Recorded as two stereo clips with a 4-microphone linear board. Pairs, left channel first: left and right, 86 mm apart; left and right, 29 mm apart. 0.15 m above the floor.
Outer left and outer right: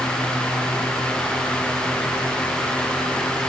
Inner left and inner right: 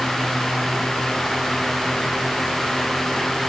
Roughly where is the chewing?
I don't hear chewing.